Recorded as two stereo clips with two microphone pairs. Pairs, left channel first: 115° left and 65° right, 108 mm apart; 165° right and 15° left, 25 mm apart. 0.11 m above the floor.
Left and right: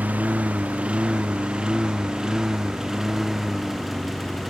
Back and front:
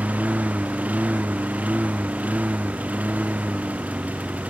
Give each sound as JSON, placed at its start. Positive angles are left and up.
{"t": 0.0, "sound": "a lawn mower", "azimuth_deg": 10}